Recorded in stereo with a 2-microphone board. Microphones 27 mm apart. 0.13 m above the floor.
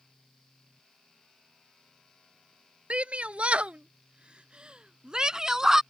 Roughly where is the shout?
Right.